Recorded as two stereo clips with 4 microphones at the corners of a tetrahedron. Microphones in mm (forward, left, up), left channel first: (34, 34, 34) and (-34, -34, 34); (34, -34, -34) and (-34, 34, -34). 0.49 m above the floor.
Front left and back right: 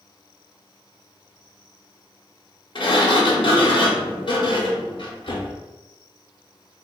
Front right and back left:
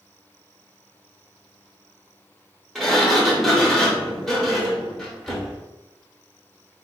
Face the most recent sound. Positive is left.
turn(degrees=45)